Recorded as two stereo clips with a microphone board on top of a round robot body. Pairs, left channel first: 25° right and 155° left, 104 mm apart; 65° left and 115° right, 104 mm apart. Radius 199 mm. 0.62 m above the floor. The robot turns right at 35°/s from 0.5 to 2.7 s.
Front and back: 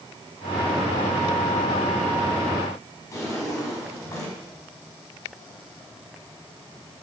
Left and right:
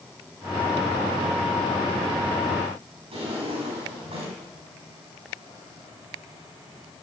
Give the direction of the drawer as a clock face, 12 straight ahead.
3 o'clock.